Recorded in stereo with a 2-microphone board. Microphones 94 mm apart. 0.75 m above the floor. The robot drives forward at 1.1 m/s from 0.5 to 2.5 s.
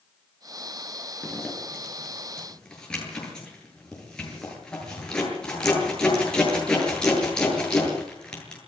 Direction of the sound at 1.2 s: 10° left (ahead or behind).